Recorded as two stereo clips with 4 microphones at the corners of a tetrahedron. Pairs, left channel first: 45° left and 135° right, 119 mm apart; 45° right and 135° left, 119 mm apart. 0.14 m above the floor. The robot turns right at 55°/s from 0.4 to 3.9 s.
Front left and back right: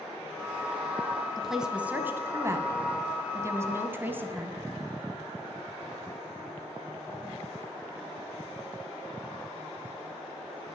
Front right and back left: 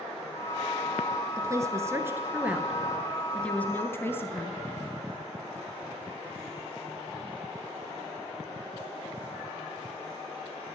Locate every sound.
1.4 s a woman speaking: 135° left, 1.1 m; by 4.6 s 85° right, 1.1 m